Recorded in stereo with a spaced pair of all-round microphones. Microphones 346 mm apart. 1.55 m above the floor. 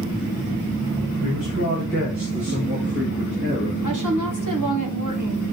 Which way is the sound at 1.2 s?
55° right (ahead or behind).